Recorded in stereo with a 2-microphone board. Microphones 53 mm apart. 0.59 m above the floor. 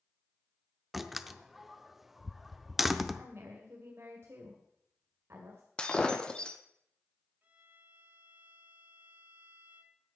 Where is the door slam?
5° right (ahead or behind), 0.6 m.